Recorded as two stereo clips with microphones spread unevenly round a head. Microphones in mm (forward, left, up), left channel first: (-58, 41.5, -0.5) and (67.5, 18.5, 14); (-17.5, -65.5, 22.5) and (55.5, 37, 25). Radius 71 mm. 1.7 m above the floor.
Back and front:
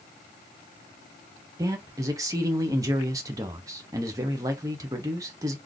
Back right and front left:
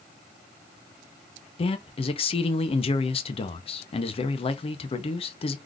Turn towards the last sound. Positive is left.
turn(degrees=-80)